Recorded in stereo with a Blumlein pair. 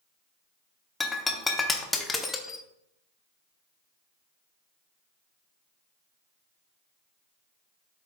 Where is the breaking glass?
10° left, 0.9 m.